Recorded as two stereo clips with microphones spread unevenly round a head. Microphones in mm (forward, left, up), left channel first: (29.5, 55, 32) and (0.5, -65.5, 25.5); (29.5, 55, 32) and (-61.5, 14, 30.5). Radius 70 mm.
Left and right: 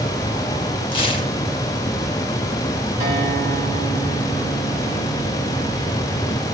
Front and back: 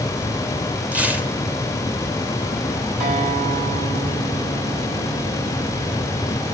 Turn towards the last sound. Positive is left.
turn(degrees=-150)